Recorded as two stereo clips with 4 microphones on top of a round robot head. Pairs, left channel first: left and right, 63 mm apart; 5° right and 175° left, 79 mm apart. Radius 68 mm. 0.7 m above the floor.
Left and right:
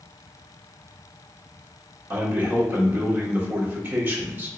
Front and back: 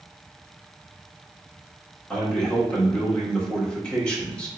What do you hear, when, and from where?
2.1 s a man speaking: 70° right, 1.3 m